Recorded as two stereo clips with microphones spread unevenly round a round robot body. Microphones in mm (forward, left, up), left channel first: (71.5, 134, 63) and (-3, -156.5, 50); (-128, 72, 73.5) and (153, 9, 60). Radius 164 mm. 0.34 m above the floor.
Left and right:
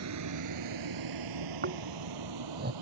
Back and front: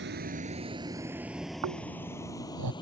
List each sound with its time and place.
0.0 s a vehicle: 70° right; by 2.8 s 115° right
1.6 s snoring: 45° right